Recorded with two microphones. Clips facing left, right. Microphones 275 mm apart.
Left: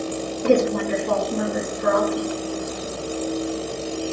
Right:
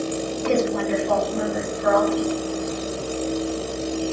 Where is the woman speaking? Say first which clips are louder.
Left 3 dB; 60° left (ahead or behind), 6 m.